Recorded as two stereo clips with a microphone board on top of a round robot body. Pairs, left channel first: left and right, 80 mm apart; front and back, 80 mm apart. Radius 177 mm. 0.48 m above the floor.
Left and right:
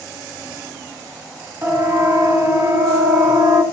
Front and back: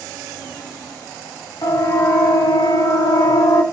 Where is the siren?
40° right, 7 m; by 3.6 s 30° right, 6.5 m.